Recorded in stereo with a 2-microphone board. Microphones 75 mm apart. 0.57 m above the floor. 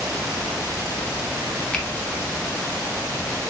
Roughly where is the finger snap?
Centre.